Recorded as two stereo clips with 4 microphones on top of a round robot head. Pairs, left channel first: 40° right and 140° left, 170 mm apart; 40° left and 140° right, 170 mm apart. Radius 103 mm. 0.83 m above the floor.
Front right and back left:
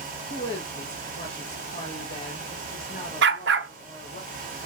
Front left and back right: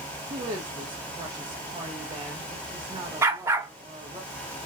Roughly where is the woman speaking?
Right.